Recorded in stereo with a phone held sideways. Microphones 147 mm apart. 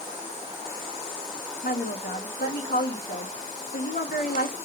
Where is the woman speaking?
90° left, 3 m.